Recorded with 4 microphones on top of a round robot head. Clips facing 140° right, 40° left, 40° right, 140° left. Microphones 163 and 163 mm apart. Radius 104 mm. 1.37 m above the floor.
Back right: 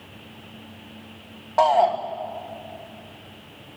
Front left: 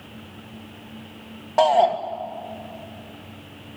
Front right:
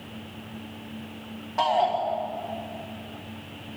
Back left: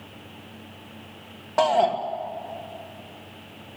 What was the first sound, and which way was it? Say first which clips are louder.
A shout: front left 1 dB, back left 3 dB; 110° left.